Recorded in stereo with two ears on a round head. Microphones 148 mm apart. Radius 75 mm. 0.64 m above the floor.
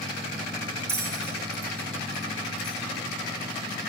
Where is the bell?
15° right (ahead or behind), 1.6 m.